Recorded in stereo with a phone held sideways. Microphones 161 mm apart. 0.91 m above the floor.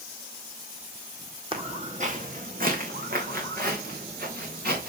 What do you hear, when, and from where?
1.5 s footsteps: 35° right (ahead or behind), 1.8 m; by 4.9 s 75° right (ahead or behind), 5 m